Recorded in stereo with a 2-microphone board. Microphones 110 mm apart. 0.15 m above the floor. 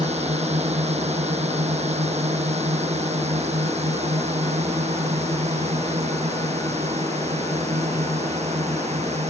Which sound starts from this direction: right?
A drone, at 0.0 s.